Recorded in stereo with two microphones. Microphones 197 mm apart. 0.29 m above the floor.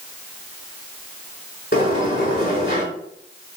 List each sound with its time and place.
1.7 s a sliding door: 55° left (ahead or behind), 1.3 m